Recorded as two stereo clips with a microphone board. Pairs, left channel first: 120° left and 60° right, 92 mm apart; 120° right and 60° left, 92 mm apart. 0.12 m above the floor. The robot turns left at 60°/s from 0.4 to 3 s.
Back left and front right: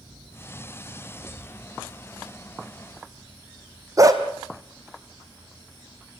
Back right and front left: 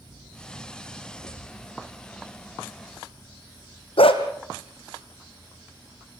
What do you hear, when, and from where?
1.2 s a thud: 140° right, 3.5 m; by 1.6 s 160° right, 3.5 m
4.0 s a dog barking: 115° right, 2.0 m